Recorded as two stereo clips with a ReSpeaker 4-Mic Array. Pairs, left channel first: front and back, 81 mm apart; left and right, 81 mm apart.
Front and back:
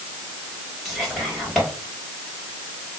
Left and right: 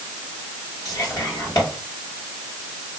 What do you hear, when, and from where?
0.8 s whispering: 80° left, 2.0 m